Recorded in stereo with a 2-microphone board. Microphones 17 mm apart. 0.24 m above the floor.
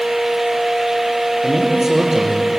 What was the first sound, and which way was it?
A man speaking, 25° right (ahead or behind).